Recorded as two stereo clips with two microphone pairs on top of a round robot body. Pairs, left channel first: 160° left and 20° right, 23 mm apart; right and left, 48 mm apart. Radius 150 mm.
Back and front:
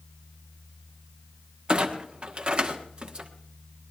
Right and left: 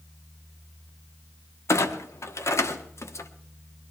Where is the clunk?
65° right, 1.4 m.